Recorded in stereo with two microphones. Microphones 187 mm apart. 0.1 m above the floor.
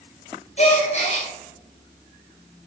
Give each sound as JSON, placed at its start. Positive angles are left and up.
{"t": 0.6, "sound": "a gasp", "side_deg": 45, "distance_m": 1.5}